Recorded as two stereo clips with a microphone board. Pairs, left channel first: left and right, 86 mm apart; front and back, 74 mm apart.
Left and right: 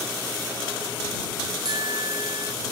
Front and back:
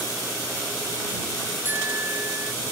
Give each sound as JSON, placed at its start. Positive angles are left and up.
{"t": 1.6, "sound": "a bicycle bell", "azimuth_deg": -120}